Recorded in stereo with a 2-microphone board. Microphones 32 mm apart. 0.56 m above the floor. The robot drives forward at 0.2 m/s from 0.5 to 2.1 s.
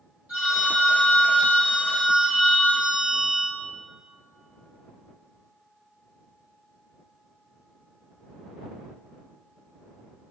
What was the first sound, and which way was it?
A phone ringing, 60° right (ahead or behind).